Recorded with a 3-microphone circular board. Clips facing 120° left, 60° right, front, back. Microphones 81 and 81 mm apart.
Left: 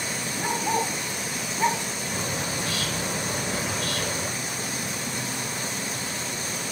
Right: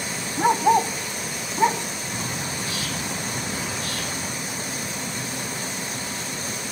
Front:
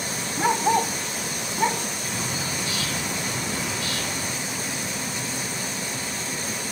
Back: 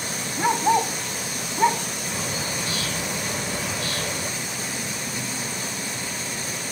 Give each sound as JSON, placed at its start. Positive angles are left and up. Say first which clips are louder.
{"t": 0.4, "sound": "a dog barking", "louder": "right 9 dB, back 1 dB", "azimuth_deg": -90, "distance_m": 2.0}
{"t": 2.1, "sound": "a bird", "louder": "left 2 dB, back 1 dB", "azimuth_deg": 125, "distance_m": 4.0}